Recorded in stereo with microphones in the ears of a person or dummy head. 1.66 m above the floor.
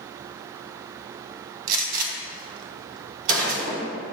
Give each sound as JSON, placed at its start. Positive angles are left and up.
{"t": 1.7, "sound": "a gunshot", "side_deg": -50, "distance_m": 1.3}